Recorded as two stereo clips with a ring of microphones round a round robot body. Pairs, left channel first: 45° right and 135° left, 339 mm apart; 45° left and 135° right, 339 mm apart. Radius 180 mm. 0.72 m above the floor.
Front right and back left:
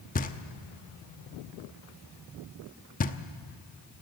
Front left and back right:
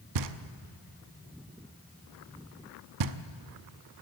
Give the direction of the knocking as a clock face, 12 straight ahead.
4 o'clock.